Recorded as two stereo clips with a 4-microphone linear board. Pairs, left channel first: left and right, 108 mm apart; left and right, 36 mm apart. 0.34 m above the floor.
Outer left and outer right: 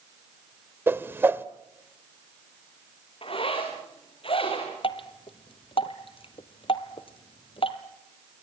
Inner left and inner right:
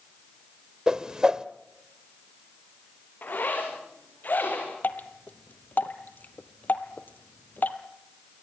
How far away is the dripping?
About 1.7 m.